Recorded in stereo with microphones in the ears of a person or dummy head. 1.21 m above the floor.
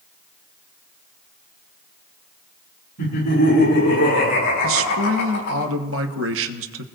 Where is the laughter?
55° left (ahead or behind), 10 m.